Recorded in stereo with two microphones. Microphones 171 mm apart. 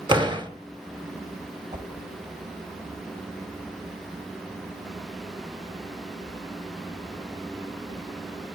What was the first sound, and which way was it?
A door slam, 30° right (ahead or behind).